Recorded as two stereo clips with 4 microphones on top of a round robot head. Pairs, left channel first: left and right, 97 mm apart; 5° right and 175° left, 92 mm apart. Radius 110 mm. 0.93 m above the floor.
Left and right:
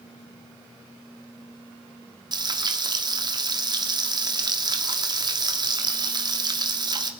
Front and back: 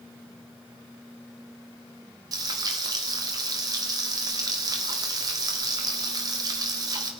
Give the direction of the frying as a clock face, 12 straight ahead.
4 o'clock.